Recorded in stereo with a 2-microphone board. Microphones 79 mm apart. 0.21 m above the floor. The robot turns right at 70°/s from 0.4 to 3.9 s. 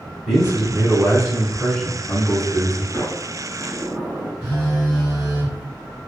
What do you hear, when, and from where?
0.3 s a man speaking: 10° right (ahead or behind), 1.2 m; by 2.8 s 15° left (ahead or behind), 1.2 m
2.9 s a sliding door: 140° left, 1.1 m; by 4.3 s 155° right, 1.1 m
4.4 s a phone buzzing: 5° left (ahead or behind), 1.5 m